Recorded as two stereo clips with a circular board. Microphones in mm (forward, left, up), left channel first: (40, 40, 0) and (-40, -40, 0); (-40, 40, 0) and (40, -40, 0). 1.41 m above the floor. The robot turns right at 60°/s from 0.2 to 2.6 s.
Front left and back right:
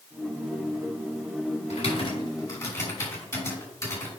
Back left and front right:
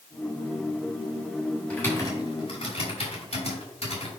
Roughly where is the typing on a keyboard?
Ahead left.